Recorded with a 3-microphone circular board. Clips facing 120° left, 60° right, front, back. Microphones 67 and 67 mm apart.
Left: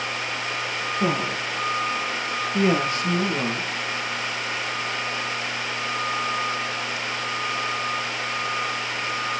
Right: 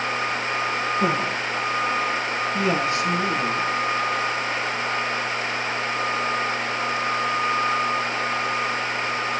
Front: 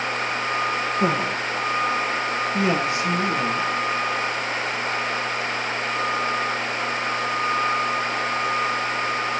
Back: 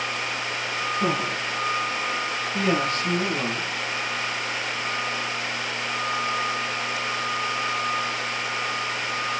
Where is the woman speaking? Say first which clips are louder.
Left 2 dB, front 2 dB; 50° left, 2.5 m; by 3.7 s 75° left, 3 m.